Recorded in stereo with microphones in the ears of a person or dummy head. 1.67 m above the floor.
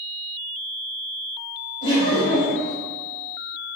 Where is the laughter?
25° left (ahead or behind), 1.2 m.